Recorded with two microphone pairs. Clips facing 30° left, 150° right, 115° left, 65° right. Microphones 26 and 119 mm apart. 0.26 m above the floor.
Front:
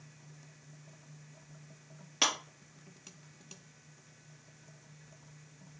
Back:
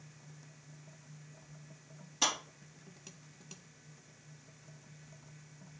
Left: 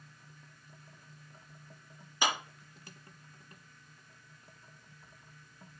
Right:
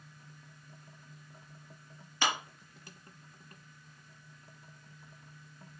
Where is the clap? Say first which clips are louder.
Front 2 dB, even; 40° left, 4 m.